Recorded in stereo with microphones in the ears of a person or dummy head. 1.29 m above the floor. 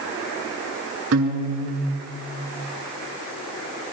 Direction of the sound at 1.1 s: 70° right (ahead or behind).